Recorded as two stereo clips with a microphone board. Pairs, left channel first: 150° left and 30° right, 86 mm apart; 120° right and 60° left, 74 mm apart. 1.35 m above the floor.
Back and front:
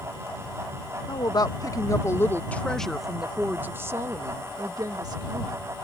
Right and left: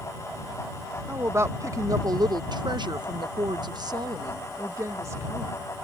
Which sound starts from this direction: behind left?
A woman speaking, at 1.1 s.